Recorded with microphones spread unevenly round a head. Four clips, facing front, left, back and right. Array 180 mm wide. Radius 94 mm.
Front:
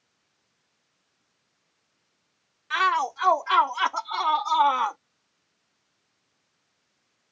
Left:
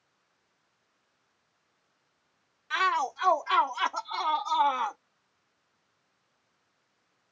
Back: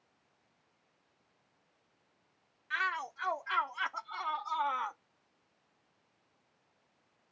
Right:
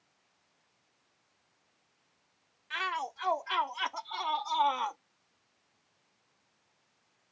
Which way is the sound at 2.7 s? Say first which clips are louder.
Left 8 dB, front 13 dB; 25° left.